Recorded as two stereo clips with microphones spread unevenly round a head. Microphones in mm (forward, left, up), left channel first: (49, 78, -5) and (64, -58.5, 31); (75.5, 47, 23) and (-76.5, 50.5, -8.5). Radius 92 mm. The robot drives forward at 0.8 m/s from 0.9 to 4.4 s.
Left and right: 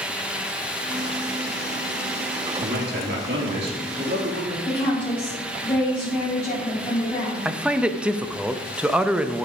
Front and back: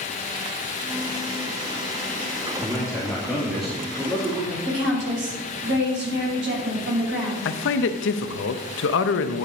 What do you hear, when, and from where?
2.6 s a man speaking: 75° right, 2.5 m; by 4.5 s 110° right, 2.5 m
4.7 s a woman speaking: straight behind, 5 m
7.5 s a man speaking: straight ahead, 0.7 m